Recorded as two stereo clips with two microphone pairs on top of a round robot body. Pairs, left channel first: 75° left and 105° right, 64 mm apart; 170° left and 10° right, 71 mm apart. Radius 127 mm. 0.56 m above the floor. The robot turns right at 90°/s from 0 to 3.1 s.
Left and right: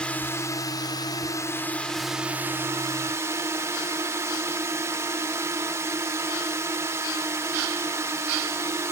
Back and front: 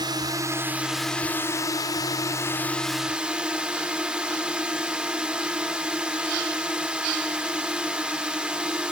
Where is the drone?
10° right; by 8.9 s 90° right.